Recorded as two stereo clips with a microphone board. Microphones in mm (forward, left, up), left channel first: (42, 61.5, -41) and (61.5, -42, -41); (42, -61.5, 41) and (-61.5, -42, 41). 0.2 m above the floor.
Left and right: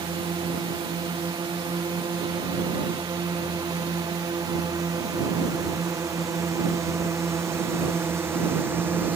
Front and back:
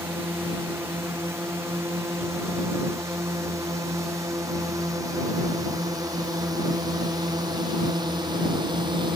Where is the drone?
125° right; by 9.2 s 150° right.